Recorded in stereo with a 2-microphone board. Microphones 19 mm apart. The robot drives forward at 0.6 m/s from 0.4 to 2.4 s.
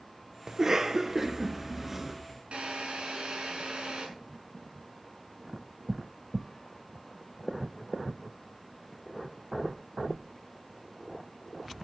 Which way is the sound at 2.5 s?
80° right.